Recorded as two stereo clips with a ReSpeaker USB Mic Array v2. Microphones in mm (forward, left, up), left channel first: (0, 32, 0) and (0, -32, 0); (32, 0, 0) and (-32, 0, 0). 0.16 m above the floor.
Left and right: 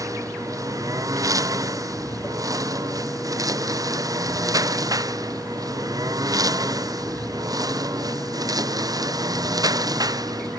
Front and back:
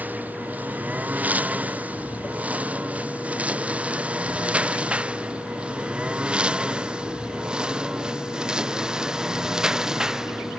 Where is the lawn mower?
120° right; by 10.6 s 100° right.